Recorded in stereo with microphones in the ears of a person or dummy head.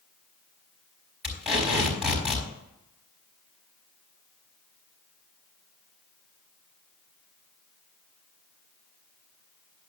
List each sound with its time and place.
1.2 s tape being pulled: 5° right (ahead or behind), 5 m